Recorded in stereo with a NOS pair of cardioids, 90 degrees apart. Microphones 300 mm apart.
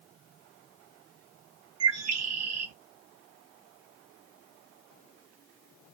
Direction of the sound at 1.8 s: 60° right.